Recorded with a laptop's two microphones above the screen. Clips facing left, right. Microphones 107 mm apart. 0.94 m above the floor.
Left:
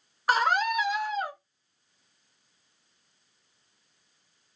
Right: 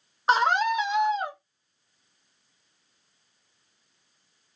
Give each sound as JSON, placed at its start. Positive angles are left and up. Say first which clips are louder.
{"t": 0.3, "sound": "a scream", "louder": "right 3 dB", "side_deg": -25, "distance_m": 0.8}